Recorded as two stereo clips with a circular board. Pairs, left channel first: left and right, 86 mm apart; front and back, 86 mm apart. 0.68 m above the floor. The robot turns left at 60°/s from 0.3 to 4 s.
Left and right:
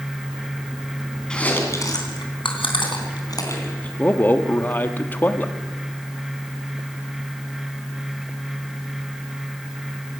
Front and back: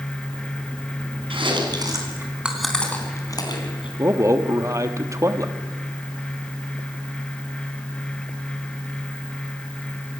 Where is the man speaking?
150° left, 1.4 m.